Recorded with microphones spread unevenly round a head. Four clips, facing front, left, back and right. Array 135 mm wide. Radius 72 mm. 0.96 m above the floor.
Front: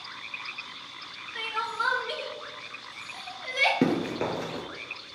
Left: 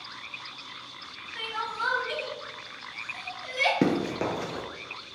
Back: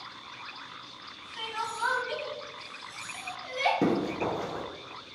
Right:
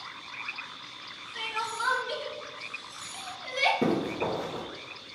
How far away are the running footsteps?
About 1.1 m.